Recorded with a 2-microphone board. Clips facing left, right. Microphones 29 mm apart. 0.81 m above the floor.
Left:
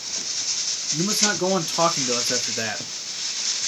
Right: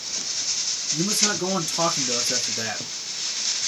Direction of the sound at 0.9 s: 20° left (ahead or behind).